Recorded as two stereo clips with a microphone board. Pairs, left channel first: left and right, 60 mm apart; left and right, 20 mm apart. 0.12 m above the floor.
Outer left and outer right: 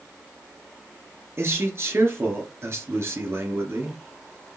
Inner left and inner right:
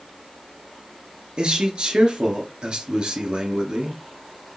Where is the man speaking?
45° right (ahead or behind), 2 m.